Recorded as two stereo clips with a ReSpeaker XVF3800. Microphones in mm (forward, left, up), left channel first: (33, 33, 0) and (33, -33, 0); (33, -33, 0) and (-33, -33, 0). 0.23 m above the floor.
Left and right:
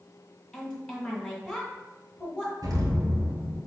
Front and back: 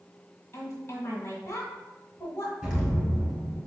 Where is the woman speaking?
25° left, 1.7 m.